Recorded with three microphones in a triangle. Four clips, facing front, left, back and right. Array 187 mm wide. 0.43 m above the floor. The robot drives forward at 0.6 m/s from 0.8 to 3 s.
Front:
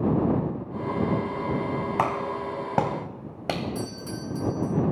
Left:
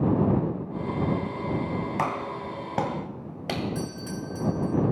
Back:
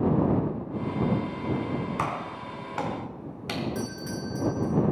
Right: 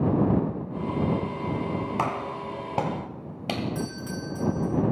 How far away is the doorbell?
About 1.8 m.